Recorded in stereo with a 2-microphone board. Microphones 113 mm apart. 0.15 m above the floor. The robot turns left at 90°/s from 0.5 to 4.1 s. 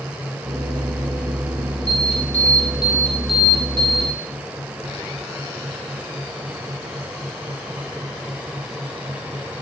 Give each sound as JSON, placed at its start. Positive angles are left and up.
{"t": 1.9, "sound": "an alarm", "azimuth_deg": 125, "distance_m": 5.5}